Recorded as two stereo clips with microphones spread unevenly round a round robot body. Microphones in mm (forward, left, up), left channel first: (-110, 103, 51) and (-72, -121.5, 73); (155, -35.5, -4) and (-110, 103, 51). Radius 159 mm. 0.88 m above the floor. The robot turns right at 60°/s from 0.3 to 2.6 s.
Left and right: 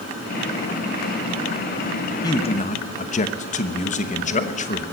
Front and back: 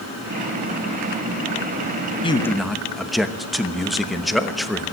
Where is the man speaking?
35° left, 1.0 m; by 4.8 s 55° left, 1.0 m.